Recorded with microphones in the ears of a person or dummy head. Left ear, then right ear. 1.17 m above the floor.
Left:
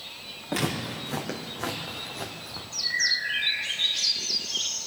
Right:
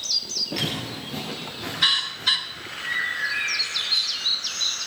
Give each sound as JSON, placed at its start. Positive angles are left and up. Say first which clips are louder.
{"t": 0.5, "sound": "footsteps", "louder": "right 2 dB", "side_deg": 40, "distance_m": 4.5}
{"t": 2.8, "sound": "a bird", "louder": "even", "side_deg": -40, "distance_m": 6.0}